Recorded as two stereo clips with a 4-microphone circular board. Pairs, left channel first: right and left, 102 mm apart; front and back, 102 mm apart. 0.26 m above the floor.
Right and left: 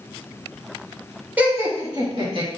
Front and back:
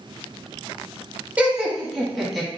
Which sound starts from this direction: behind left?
Laughter, at 1.4 s.